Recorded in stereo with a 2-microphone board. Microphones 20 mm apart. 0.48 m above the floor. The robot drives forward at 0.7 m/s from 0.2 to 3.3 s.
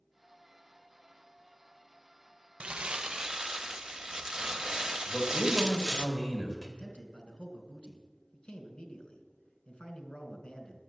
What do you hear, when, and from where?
2.6 s crumpling: 60° right (ahead or behind), 0.5 m; by 6.1 s 30° right (ahead or behind), 0.9 m
5.1 s a man speaking: 20° left (ahead or behind), 3.5 m
6.8 s a man speaking: 45° left (ahead or behind), 2.5 m